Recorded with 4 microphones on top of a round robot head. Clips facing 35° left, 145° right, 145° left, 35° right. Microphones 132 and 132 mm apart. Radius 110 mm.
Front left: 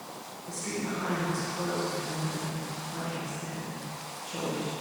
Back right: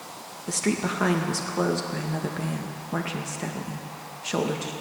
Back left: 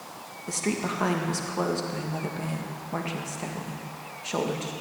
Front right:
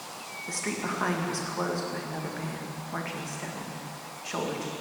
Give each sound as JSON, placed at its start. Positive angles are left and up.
{"t": 0.5, "sound": "a woman speaking", "azimuth_deg": -150, "distance_m": 1.8}